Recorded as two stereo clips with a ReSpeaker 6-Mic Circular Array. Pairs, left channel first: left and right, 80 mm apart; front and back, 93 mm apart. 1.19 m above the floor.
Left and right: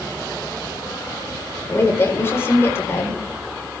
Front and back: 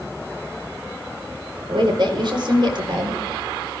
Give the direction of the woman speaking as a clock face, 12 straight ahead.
7 o'clock.